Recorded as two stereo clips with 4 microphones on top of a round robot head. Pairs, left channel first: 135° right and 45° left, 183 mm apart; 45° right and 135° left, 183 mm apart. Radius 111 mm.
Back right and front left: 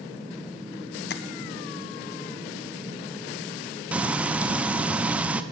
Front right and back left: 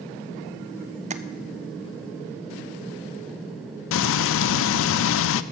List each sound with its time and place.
1.1 s tapping: 170° right, 0.7 m
3.9 s frying: 40° right, 0.5 m